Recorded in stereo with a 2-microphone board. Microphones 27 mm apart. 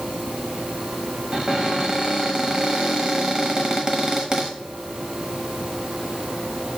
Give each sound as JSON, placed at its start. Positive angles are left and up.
{"t": 1.3, "sound": "a cupboard door", "side_deg": -25, "distance_m": 1.0}